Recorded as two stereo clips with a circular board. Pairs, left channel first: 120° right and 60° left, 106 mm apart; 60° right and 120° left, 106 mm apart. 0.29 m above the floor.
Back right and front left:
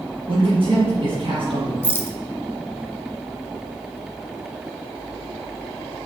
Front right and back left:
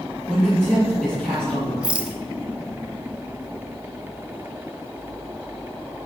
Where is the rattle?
170° right, 1.1 m.